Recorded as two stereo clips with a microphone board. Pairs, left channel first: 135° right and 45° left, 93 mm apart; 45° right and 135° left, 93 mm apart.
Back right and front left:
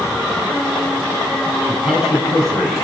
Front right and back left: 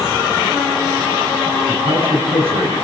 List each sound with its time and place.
1.7 s a man speaking: 135° left, 6.5 m